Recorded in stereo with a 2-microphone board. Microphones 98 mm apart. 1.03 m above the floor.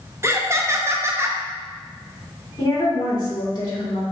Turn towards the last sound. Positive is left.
turn(degrees=40)  # may be behind; listen again after turning